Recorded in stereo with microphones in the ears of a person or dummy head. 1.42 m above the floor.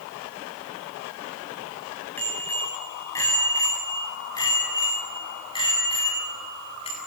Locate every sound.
2.2 s a bicycle bell: 10° left (ahead or behind), 8 m; by 7.1 s 30° left (ahead or behind), 9.5 m